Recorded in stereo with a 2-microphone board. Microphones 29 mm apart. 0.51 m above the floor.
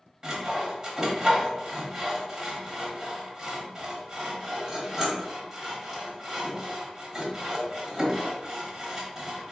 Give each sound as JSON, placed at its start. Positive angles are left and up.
{"t": 0.2, "sound": "sawing", "side_deg": -25, "distance_m": 1.5}